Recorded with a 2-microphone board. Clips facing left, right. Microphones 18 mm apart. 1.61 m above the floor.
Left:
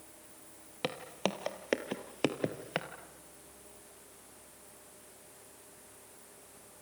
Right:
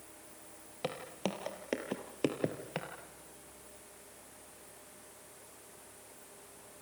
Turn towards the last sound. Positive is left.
turn(degrees=25)  # may be behind; listen again after turning